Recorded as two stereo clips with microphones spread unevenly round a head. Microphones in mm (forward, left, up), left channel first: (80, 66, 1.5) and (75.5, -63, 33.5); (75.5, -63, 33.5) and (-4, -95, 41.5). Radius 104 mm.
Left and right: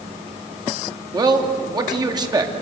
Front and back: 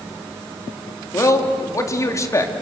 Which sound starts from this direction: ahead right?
A man speaking, at 1.1 s.